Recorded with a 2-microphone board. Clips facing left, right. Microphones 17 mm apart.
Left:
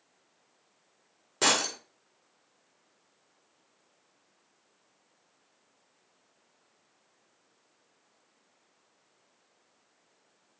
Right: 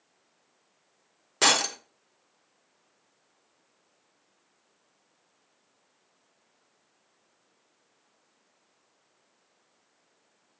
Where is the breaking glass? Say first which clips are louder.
Right 3 dB; 20° right (ahead or behind), 2 m.